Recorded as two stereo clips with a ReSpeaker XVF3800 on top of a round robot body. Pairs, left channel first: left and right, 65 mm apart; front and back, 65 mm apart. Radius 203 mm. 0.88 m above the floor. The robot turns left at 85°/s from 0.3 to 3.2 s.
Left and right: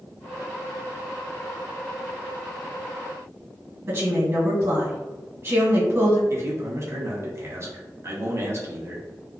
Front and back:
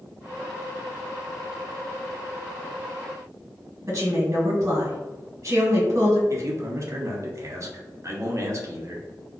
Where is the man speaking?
135° right, 0.7 m.